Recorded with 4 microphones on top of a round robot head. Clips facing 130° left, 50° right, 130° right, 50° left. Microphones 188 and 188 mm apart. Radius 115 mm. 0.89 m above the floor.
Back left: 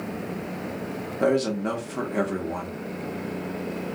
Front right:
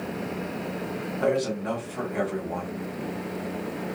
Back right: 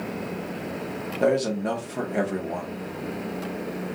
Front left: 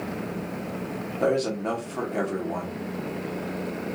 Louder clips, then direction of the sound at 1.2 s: Back left 3 dB, back right 2 dB; 150° left.